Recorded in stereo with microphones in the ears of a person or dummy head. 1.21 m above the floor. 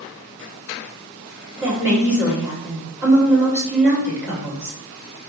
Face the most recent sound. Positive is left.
turn(degrees=-5)  # may be behind; listen again after turning